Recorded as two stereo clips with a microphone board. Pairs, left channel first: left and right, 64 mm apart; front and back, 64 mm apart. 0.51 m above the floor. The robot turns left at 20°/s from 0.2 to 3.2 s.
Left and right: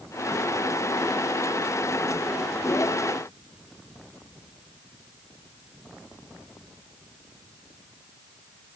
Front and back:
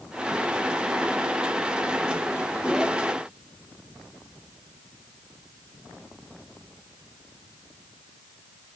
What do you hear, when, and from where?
Only background noise.